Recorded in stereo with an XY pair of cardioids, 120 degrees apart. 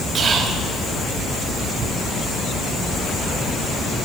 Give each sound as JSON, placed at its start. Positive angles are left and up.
{"t": 0.1, "sound": "whispering", "azimuth_deg": -40, "distance_m": 2.5}